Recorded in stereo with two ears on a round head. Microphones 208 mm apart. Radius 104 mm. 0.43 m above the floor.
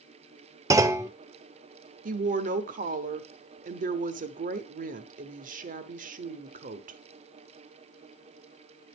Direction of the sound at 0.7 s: 15° right (ahead or behind).